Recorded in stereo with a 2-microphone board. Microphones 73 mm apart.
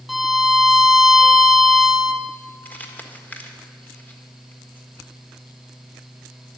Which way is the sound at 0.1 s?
Centre (ahead or behind).